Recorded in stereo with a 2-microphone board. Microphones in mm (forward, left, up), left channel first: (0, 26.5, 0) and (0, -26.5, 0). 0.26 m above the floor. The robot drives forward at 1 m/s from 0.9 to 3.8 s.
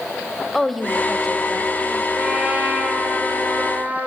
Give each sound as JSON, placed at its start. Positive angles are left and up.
{"t": 0.5, "sound": "a woman speaking", "side_deg": 5, "distance_m": 1.1}
{"t": 2.1, "sound": "a trumpet", "side_deg": -20, "distance_m": 5.5}